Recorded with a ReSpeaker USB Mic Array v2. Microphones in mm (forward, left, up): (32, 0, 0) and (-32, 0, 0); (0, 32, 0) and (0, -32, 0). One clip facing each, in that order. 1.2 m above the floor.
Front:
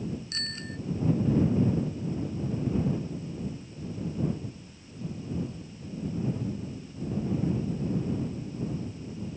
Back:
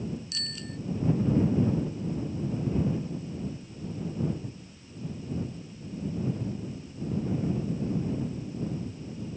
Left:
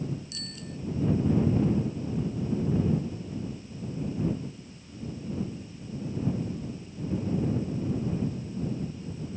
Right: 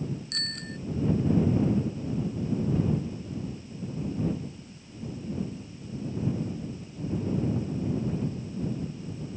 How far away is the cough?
No cough in this recording.